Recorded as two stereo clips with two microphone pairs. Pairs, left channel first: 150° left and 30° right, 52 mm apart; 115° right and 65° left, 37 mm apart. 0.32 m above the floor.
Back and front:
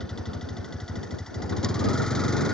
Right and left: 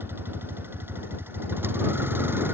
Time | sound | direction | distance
0.0 | a vehicle | 70° left | ?